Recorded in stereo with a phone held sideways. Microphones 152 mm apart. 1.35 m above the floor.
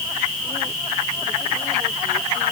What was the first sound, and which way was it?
Only background noise.